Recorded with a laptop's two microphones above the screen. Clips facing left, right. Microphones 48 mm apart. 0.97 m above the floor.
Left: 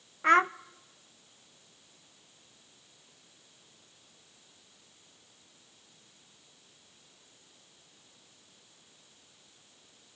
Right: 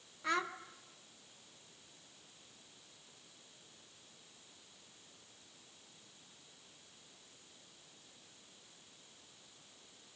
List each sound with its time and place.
0.2 s a child speaking: 50° left (ahead or behind), 0.5 m